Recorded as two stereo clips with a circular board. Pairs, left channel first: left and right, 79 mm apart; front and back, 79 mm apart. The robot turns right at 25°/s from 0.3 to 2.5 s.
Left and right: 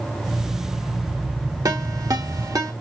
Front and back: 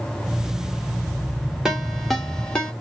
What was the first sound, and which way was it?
A ringtone, 95° right.